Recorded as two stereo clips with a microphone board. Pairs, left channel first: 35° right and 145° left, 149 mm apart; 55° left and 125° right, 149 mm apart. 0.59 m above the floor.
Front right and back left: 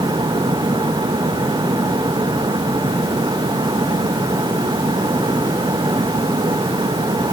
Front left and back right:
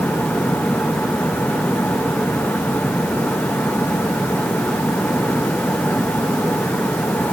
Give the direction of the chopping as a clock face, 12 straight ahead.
I don't hear chopping.